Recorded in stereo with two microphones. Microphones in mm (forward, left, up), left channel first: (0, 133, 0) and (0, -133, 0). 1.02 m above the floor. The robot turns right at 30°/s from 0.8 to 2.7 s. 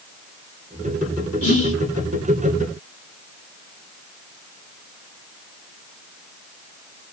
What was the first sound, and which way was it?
Whispering, 60° left (ahead or behind).